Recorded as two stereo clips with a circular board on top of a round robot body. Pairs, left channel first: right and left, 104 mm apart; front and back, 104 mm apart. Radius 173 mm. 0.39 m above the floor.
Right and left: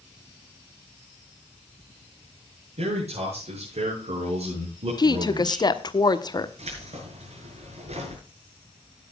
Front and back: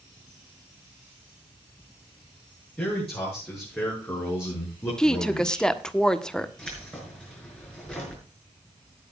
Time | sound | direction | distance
2.8 | a man speaking | 75° left | 7.5 m
5.0 | a woman speaking | 80° right | 1.5 m
6.6 | keys jangling | 80° left | 6 m